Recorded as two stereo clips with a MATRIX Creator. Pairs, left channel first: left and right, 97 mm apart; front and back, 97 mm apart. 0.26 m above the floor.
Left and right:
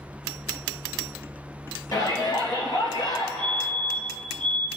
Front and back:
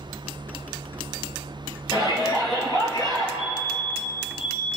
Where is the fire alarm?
5° right, 4.5 m.